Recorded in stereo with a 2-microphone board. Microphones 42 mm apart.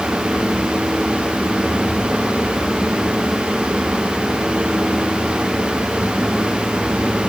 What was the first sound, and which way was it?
Only background noise.